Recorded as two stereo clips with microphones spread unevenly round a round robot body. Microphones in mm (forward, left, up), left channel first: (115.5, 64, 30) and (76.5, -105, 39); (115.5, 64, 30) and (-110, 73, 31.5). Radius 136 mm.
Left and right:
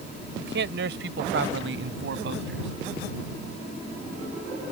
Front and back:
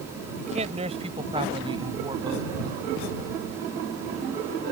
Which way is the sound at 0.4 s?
120° right.